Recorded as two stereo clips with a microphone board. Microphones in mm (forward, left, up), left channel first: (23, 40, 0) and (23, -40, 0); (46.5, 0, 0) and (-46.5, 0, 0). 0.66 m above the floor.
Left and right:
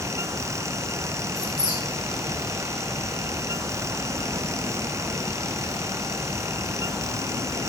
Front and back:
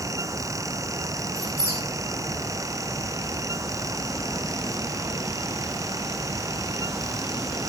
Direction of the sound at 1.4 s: 55° right.